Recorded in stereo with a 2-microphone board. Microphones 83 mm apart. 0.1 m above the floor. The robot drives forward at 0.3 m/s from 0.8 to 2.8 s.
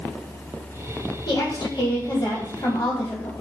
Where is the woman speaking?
60° left (ahead or behind), 2 m.